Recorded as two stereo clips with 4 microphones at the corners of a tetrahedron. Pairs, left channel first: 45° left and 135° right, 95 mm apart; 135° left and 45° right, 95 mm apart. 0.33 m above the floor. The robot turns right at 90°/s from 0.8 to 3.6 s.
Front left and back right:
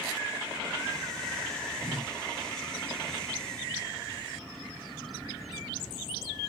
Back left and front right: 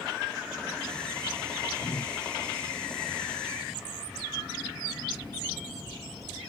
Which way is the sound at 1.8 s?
175° left.